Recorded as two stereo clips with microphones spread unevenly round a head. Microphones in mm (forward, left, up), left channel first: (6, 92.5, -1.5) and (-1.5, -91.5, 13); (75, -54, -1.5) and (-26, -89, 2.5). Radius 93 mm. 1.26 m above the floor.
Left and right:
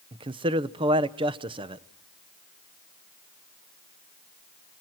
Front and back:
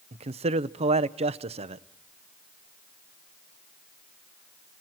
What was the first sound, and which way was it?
A man speaking, 155° right.